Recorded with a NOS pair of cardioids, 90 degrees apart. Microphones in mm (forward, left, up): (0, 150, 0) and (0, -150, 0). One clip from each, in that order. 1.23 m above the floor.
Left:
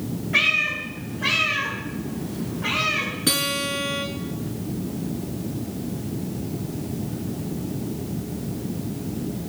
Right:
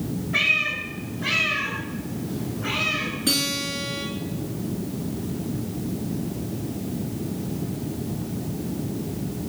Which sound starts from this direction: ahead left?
A cat meowing, at 0.3 s.